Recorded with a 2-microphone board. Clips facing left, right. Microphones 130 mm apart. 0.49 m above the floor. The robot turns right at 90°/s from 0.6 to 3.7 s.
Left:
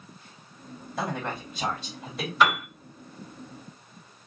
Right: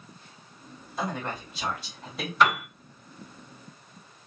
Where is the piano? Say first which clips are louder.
Even; 5° left (ahead or behind), 2.0 m; by 2.6 s 10° right (ahead or behind), 2.0 m.